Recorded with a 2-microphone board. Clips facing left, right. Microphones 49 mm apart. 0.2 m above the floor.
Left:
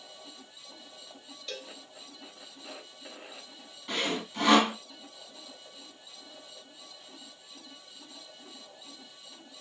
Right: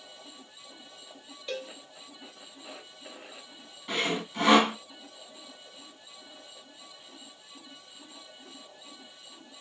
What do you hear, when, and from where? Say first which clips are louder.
1.5 s a cowbell: right 6 dB; 15° right (ahead or behind), 0.9 m
3.9 s sawing: right 2 dB; 5° right (ahead or behind), 1.4 m